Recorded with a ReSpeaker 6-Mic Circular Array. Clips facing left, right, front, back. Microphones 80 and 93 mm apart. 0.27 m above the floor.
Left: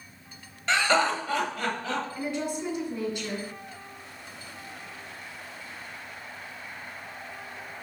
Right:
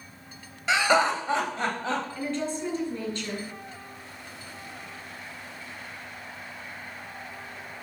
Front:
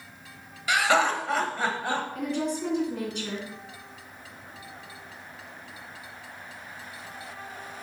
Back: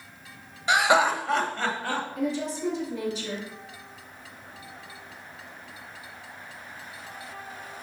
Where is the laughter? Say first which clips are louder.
Right 2 dB, back 2 dB; 165° right, 1.1 m; by 2.0 s 55° right, 1.4 m.